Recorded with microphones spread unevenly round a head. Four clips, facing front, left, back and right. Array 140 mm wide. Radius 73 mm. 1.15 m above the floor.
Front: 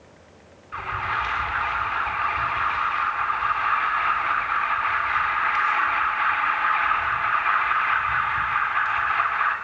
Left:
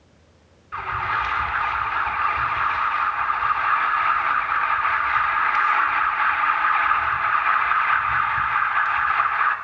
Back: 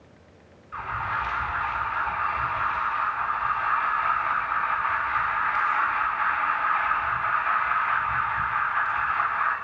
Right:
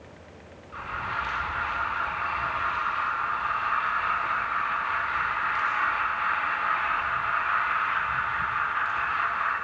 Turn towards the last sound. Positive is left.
turn(degrees=50)